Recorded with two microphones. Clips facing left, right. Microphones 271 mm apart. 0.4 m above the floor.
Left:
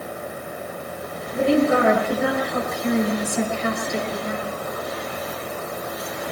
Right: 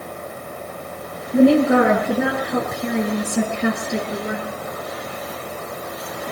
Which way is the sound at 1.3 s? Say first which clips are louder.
Right 5 dB; 80° right.